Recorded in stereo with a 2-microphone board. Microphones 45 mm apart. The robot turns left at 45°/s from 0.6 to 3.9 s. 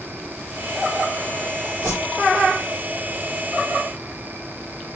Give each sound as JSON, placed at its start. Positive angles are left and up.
{"t": 1.8, "sound": "a whoosh", "side_deg": -40, "distance_m": 6.5}